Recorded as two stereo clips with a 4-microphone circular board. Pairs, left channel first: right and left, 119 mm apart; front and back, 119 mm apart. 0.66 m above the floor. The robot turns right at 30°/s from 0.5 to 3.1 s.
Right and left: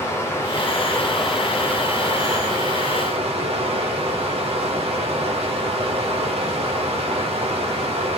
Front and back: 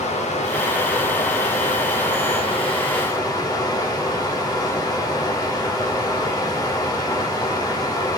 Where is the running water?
20° right, 0.7 m; by 8.2 s 55° left, 0.7 m.